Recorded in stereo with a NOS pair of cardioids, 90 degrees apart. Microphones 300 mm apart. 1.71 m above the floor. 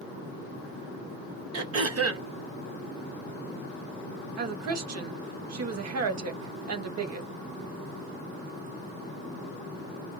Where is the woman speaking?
60° right, 1.2 m.